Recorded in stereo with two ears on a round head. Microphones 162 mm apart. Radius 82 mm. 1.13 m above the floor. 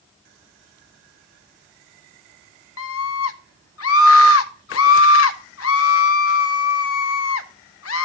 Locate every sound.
2.8 s a scream: 85° left, 1.1 m